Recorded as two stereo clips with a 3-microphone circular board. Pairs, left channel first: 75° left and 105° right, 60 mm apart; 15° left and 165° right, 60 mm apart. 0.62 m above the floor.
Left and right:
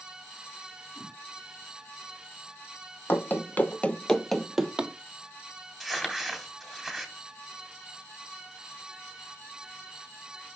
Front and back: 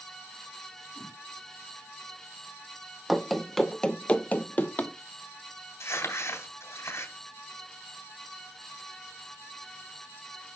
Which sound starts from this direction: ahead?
Crumpling, at 5.8 s.